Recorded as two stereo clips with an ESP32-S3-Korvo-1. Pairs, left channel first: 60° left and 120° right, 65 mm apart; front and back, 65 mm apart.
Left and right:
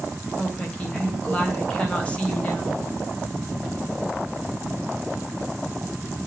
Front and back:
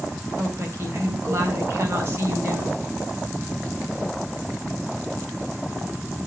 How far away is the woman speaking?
About 4 m.